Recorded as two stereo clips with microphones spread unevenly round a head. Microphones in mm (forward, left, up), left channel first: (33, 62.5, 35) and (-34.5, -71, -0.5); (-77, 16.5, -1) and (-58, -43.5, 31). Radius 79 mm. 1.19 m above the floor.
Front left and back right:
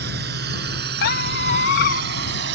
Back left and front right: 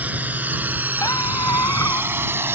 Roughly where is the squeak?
Ahead left.